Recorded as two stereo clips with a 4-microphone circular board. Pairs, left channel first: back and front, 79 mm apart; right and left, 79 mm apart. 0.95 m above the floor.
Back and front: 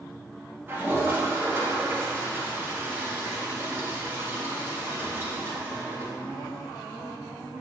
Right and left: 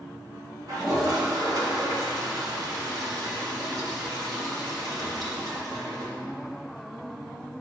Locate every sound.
0.7 s a toilet flushing: 60° left, 1.8 m